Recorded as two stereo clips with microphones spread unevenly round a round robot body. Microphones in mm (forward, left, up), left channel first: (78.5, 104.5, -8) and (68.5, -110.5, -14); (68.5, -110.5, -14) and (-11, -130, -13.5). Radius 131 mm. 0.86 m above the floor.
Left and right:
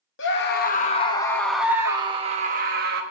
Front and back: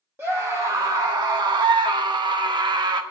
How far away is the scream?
About 0.9 m.